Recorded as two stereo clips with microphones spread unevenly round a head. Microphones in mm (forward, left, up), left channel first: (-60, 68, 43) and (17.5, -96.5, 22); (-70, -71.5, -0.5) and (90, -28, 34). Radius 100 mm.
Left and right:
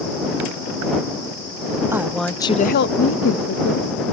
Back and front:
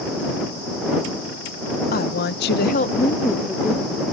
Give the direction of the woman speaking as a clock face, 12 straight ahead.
5 o'clock.